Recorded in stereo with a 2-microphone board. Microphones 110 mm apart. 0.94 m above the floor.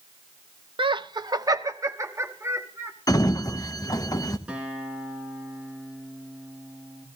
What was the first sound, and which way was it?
Laughter, 50° right (ahead or behind).